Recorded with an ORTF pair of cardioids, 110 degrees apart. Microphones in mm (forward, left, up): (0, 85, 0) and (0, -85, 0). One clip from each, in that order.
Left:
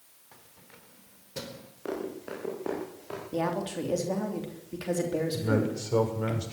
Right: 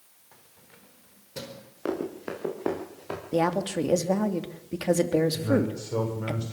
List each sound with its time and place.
0.3 s keys jangling: 5° left, 4 m; by 1.7 s 5° right, 5.5 m
1.9 s running footsteps: 45° right, 9.5 m
3.3 s a woman speaking: 40° right, 3 m
5.3 s a man speaking: 20° left, 7.5 m